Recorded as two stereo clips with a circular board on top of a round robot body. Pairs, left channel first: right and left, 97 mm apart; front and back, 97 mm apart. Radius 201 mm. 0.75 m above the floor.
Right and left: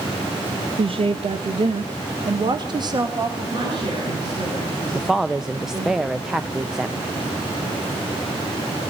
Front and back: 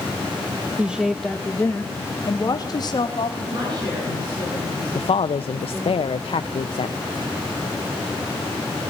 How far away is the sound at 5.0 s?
About 0.6 m.